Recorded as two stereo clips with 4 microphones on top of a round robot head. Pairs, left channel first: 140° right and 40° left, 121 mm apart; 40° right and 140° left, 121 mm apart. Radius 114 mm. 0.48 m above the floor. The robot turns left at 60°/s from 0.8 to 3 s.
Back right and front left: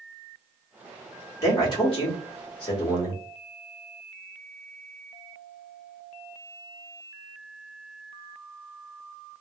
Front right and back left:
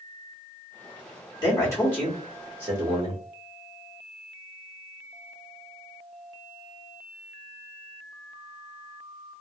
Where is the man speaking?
85° right, 2.0 m; by 3.2 s straight behind, 2.0 m.